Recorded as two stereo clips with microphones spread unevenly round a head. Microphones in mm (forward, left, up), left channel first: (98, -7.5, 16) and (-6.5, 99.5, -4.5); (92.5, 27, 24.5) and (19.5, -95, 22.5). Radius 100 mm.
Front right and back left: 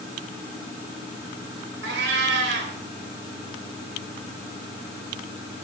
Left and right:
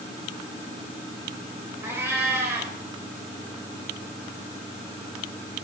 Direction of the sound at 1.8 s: 160° left.